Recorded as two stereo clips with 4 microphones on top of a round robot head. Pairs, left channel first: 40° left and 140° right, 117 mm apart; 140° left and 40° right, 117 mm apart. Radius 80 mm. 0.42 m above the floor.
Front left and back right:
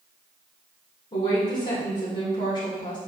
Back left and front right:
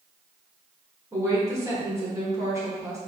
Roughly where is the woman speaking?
Ahead.